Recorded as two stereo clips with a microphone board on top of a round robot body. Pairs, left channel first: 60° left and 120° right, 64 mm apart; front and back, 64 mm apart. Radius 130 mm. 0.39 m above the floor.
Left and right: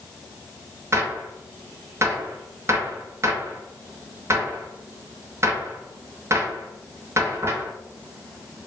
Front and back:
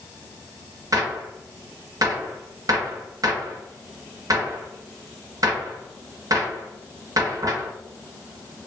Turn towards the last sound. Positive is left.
turn(degrees=-160)